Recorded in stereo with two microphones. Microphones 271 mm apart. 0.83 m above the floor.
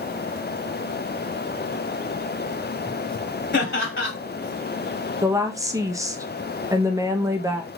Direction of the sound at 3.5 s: 45° left (ahead or behind).